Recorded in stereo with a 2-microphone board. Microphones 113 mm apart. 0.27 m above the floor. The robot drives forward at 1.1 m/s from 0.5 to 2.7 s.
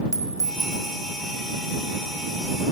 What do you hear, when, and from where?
0.1 s a clink: 30° right (ahead or behind), 0.7 m